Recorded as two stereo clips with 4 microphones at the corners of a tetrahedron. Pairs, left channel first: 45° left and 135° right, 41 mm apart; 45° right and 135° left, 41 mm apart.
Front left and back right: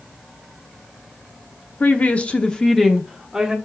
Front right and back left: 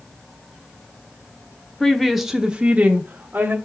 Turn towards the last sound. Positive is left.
turn(degrees=150)